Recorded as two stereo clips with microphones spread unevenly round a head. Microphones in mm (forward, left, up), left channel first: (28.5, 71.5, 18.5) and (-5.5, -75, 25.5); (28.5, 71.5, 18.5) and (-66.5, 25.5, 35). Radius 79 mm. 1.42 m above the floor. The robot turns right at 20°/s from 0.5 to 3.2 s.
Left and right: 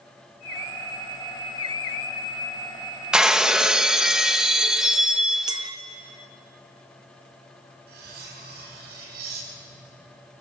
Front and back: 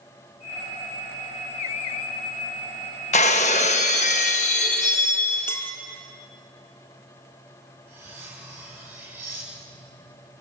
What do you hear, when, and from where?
3.1 s breaking glass: 20° right, 0.9 m
5.5 s a clink: 55° right, 0.7 m
7.9 s cutlery clinking: 80° right, 6 m